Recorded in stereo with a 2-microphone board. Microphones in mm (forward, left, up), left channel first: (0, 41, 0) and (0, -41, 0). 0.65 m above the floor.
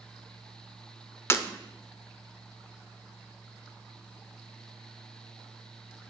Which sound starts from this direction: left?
Breaking glass, at 1.3 s.